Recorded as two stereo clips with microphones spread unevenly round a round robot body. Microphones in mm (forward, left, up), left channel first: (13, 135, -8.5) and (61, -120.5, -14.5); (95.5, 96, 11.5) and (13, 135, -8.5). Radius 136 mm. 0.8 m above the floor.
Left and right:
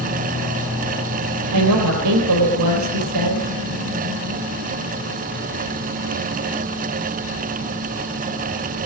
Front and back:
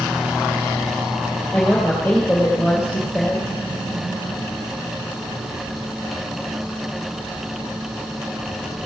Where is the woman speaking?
110° right, 4 m.